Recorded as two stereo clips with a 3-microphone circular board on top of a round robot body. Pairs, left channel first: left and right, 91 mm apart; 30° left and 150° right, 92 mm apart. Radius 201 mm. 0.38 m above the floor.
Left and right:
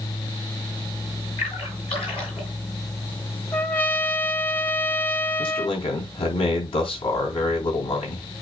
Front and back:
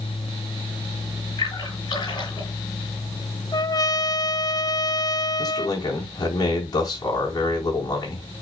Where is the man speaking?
80° left, 4.5 m.